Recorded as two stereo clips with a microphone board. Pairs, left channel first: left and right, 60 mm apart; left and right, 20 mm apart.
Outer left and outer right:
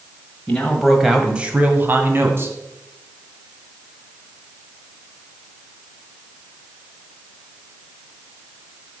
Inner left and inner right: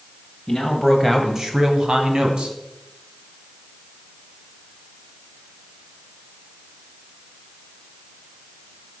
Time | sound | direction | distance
0.5 | a man speaking | 15° left (ahead or behind) | 1.3 m